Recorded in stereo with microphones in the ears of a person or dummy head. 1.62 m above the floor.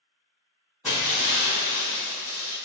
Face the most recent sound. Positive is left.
turn(degrees=0)  # may be behind; listen again after turning